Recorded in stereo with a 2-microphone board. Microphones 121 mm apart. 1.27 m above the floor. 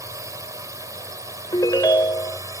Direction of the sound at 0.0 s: 25° right (ahead or behind).